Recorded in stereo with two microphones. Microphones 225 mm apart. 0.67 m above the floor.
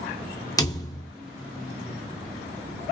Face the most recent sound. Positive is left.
turn(degrees=15)  # may be behind; listen again after turning